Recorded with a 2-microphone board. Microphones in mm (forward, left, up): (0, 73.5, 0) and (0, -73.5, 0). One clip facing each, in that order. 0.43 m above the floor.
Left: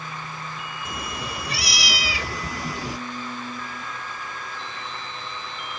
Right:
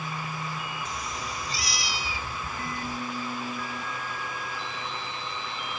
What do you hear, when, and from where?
0.8 s a cat meowing: 55° left (ahead or behind); by 3.0 s 85° left